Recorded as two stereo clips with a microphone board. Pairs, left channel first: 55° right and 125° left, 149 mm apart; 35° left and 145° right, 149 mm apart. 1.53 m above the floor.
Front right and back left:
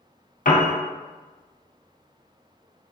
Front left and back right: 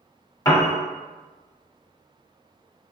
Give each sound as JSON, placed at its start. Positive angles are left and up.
{"t": 0.5, "sound": "a piano", "azimuth_deg": -30, "distance_m": 0.7}